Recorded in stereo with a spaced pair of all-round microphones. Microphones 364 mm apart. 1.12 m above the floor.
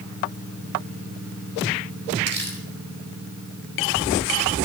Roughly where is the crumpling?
Right.